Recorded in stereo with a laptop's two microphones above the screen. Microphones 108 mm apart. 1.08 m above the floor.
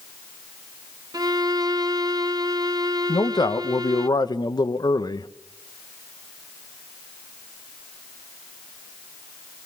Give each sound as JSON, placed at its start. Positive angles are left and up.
{"t": 1.1, "sound": "a violin", "side_deg": -35, "distance_m": 0.6}
{"t": 3.1, "sound": "a man speaking", "side_deg": 40, "distance_m": 0.9}